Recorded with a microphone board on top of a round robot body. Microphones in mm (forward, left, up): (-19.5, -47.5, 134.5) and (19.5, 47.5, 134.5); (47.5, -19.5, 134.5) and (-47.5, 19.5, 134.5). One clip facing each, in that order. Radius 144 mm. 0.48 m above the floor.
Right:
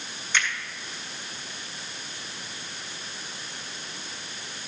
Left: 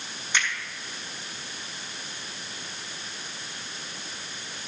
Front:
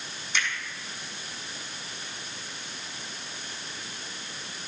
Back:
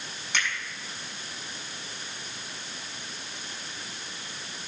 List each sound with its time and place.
0.3 s a finger snap: 140° left, 4.5 m